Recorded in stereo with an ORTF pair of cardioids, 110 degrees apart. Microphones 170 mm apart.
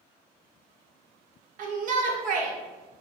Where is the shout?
55° right, 1.2 m.